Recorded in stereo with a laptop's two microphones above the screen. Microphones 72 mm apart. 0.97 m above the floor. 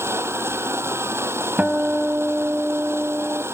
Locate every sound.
0.0 s a machine running: 35° right (ahead or behind)
1.6 s a guitar: 20° right (ahead or behind)